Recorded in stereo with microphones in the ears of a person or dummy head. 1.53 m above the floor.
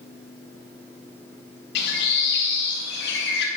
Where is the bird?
60° left (ahead or behind), 1.9 m.